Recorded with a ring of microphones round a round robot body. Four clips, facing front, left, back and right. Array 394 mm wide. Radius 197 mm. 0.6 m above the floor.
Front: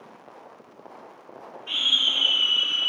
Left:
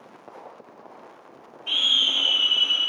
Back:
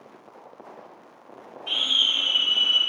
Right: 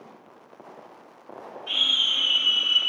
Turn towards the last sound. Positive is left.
turn(degrees=160)